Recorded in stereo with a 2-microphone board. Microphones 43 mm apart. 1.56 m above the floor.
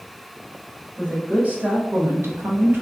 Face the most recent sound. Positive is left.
turn(degrees=-55)  # may be behind; listen again after turning